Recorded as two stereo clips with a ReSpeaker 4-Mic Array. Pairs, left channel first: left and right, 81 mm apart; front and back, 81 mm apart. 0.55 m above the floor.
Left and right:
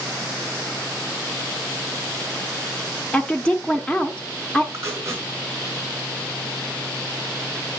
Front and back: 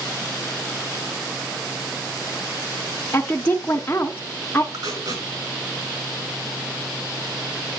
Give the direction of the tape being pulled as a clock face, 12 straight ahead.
5 o'clock.